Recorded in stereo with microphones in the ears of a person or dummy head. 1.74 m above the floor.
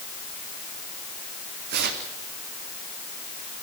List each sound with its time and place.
1.7 s tearing paper: 60° right (ahead or behind), 4 m